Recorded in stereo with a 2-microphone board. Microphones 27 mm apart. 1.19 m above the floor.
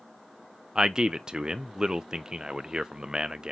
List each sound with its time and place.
0.8 s a man speaking: 30° right (ahead or behind), 0.8 m